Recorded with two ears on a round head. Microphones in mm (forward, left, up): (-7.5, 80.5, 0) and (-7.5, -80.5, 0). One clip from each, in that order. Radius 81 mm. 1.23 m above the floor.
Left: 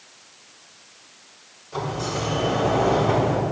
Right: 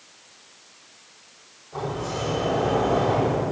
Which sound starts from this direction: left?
A sliding door, at 1.7 s.